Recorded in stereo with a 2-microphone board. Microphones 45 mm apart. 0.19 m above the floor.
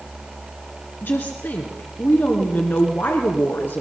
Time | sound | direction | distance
1.0 | a woman speaking | 50° left (ahead or behind) | 2.0 m